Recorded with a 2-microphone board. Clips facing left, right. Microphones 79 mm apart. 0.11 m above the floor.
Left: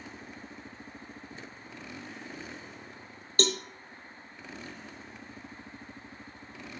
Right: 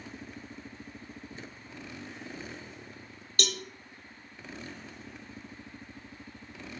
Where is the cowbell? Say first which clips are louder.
Left 6 dB; 35° left (ahead or behind), 0.6 m.